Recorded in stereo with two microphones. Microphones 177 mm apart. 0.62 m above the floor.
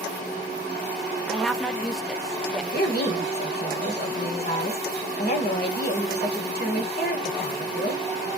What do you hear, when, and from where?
1.3 s a woman speaking: centre (ahead or behind), 0.8 m
2.7 s a woman speaking: 60° left (ahead or behind), 1.8 m